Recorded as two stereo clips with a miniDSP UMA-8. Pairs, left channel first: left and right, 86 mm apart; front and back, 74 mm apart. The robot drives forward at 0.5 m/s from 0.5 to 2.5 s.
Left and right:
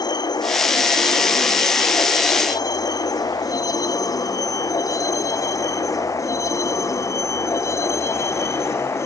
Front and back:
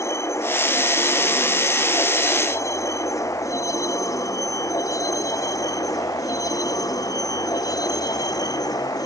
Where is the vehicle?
50° left; by 9.1 s 30° left.